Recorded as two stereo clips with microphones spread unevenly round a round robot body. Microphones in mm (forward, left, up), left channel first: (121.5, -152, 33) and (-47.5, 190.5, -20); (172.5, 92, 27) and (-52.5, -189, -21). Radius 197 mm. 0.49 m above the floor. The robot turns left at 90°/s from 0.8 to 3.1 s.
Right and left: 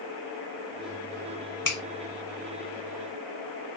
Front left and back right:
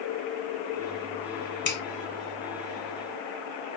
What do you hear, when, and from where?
1.6 s a finger snap: 5° right, 1.7 m; by 1.8 s 20° right, 1.7 m